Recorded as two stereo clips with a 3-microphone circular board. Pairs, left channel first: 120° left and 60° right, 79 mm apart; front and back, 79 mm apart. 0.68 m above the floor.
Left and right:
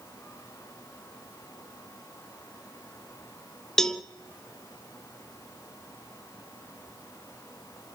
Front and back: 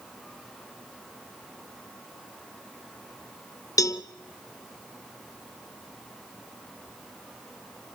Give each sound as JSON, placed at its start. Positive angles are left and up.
{"t": 3.8, "sound": "a cowbell", "azimuth_deg": 35, "distance_m": 0.7}